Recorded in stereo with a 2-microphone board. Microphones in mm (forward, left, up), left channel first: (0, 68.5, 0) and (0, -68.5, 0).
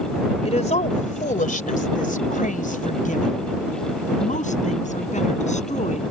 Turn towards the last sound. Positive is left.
turn(degrees=60)  # may be behind; listen again after turning